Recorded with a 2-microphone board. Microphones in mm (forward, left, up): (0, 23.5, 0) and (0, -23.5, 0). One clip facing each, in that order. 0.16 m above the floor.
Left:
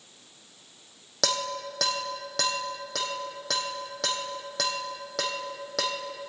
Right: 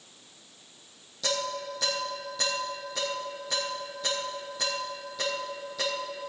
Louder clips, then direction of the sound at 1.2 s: Left 1 dB; 75° left (ahead or behind).